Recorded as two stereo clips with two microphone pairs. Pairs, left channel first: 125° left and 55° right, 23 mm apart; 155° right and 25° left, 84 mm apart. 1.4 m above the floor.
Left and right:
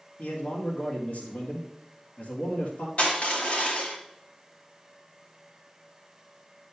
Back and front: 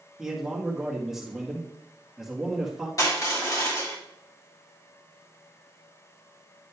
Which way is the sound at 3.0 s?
155° left.